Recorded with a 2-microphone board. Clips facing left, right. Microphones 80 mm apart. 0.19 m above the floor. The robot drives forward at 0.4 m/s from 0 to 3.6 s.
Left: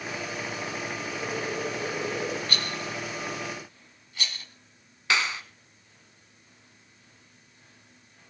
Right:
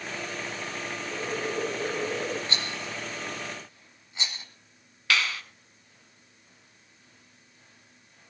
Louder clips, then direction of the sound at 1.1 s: Right 2 dB; 20° right (ahead or behind).